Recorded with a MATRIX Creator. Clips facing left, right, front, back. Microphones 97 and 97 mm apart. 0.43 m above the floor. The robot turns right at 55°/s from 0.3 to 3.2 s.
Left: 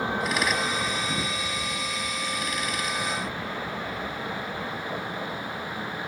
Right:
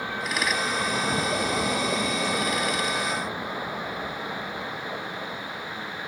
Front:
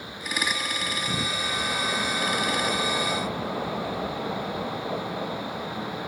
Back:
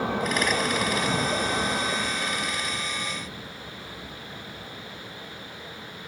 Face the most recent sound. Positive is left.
turn(degrees=15)